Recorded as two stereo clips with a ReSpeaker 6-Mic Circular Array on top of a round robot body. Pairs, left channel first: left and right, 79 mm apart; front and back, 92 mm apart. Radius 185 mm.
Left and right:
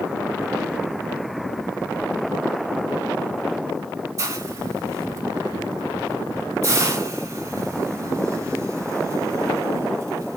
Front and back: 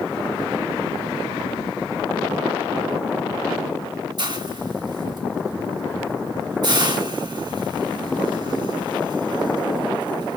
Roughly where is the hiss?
Behind right.